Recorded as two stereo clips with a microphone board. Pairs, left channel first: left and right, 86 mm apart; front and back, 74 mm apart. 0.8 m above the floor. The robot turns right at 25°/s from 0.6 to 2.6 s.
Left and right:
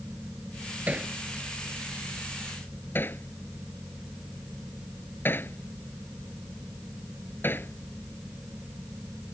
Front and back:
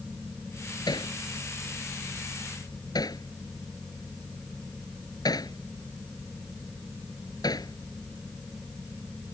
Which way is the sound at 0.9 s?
20° right.